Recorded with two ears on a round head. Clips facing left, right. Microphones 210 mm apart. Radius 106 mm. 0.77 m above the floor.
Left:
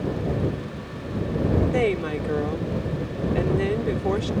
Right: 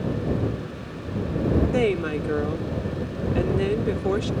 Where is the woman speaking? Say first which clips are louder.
Right 1 dB; 10° right (ahead or behind).